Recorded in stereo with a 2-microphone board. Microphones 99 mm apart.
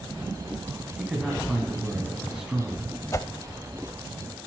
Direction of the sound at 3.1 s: 30° left (ahead or behind).